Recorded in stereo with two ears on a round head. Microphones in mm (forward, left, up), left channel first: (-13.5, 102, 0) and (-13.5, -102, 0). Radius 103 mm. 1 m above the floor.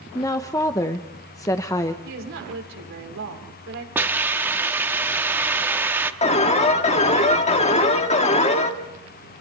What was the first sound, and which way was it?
A woman speaking, 15° left (ahead or behind).